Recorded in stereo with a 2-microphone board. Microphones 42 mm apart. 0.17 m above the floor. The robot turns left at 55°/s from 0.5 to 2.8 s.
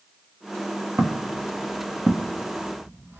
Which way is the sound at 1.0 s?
60° right (ahead or behind).